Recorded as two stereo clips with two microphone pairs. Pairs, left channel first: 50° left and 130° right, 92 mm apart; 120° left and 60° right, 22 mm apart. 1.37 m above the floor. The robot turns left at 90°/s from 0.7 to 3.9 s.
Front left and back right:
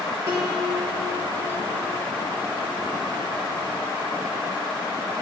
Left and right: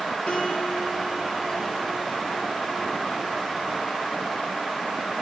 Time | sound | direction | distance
0.3 | a piano | 170° left | 3 m